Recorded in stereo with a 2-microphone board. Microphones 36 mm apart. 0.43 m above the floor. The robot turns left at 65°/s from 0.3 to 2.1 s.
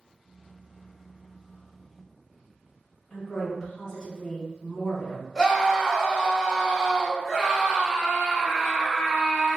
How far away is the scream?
About 1.6 m.